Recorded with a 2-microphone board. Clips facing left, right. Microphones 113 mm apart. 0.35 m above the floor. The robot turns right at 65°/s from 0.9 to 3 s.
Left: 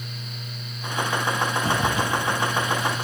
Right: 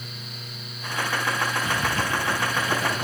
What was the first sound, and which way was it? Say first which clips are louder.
A zipper: left 3 dB; 35° left (ahead or behind).